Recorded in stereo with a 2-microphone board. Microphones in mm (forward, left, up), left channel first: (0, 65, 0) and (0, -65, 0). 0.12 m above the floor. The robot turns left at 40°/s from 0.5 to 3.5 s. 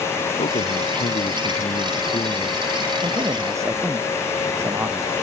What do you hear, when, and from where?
0.4 s a man speaking: 110° left; by 2.7 s 20° left
3.0 s a man speaking: 40° right (ahead or behind); by 5.2 s 20° right (ahead or behind)